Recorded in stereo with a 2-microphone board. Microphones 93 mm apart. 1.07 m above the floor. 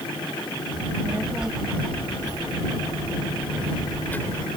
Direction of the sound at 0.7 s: 10° right (ahead or behind).